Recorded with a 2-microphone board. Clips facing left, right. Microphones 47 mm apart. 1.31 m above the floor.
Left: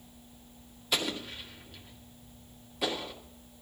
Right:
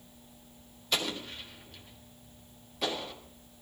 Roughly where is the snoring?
No snoring in this recording.